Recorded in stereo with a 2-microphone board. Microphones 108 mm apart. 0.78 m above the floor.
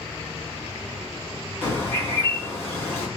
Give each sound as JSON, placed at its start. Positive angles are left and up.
{"t": 1.6, "sound": "a bird", "side_deg": 25, "distance_m": 5.5}